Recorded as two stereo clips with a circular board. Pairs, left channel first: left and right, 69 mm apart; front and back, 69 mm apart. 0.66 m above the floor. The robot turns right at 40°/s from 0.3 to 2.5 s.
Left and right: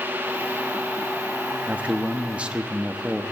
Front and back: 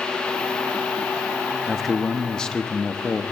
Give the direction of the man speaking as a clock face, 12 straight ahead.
3 o'clock.